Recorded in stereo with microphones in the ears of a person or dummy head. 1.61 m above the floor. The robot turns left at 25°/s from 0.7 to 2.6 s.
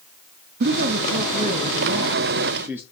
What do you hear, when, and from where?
0.6 s a man speaking: 120° right, 0.5 m; by 2.8 s 170° right, 0.5 m